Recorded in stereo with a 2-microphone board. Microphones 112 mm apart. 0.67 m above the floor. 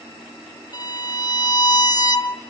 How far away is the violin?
About 0.5 m.